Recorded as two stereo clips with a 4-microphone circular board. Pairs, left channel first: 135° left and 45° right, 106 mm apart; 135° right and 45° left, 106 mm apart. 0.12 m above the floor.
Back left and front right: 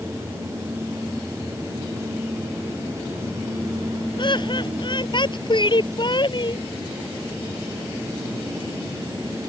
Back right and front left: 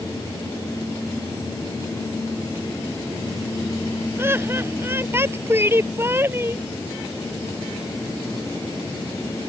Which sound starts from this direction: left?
Laughter, at 4.2 s.